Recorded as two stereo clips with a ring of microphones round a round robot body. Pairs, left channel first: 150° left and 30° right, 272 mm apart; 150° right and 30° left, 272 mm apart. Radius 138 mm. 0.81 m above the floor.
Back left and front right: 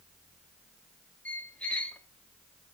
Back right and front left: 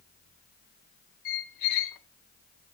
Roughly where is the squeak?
Behind right.